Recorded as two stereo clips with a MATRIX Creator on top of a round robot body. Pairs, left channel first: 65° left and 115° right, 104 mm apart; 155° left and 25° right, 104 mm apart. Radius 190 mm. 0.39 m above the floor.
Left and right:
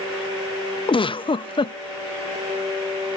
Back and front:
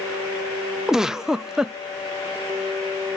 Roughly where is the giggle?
Ahead left.